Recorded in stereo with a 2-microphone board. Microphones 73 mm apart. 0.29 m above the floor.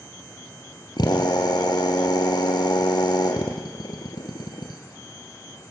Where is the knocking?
I don't hear knocking.